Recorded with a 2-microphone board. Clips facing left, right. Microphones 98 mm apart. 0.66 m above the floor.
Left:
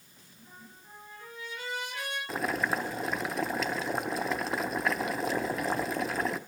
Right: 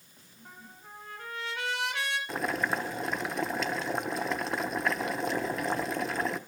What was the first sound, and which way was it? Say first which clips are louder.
A trumpet: right 3 dB; 75° right (ahead or behind).